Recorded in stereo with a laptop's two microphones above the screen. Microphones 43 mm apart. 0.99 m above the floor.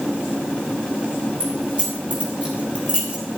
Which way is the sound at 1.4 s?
25° right (ahead or behind).